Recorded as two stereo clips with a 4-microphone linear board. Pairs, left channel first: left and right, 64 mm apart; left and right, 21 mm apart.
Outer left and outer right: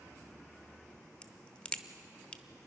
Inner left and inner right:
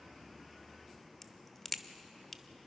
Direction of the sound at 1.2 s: 15° left (ahead or behind).